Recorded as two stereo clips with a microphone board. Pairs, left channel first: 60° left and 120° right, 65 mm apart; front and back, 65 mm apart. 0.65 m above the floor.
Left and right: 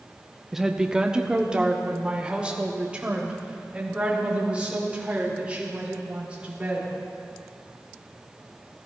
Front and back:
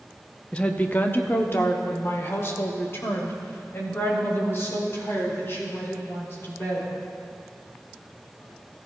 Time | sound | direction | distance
0.5 | a woman speaking | 40° right | 0.7 m